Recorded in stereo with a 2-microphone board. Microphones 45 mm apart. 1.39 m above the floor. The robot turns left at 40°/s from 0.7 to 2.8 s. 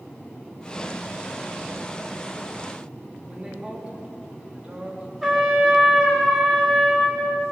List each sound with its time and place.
3.3 s a woman speaking: 25° right (ahead or behind), 2.5 m
5.2 s a trumpet: 5° right (ahead or behind), 2.5 m